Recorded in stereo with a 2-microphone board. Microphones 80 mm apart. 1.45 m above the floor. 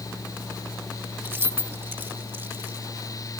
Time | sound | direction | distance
1.2 | keys jangling | 25° right (ahead or behind) | ?